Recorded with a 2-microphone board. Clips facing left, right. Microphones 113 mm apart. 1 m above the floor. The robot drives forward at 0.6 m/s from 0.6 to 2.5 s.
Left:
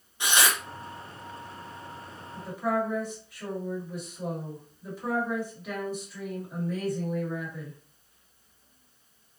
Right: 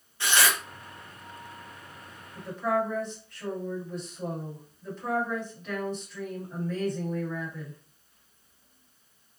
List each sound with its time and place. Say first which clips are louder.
0.2 s tearing paper: even; 15° left (ahead or behind), 0.6 m
2.4 s a woman speaking: right 1 dB; 10° left (ahead or behind), 1.5 m; by 7.8 s 5° left (ahead or behind), 1.6 m